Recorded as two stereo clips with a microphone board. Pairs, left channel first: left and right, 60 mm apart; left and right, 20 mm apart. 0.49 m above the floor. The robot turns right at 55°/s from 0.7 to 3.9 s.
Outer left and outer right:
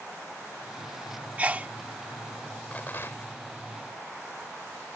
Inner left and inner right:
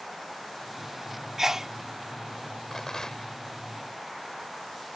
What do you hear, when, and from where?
1.4 s a sneeze: 25° right (ahead or behind)
2.7 s a rattle: 35° left; by 3.4 s 70° left